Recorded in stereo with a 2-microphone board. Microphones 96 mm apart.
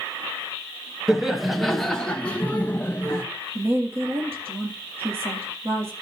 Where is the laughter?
5° right (ahead or behind), 1.3 m; by 3.2 s 30° left (ahead or behind), 1.3 m.